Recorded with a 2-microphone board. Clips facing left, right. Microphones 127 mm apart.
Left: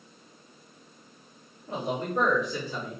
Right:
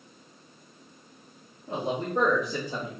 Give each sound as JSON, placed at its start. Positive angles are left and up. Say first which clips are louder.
{"t": 1.7, "sound": "a man speaking", "louder": "right 1 dB", "side_deg": -25, "distance_m": 2.0}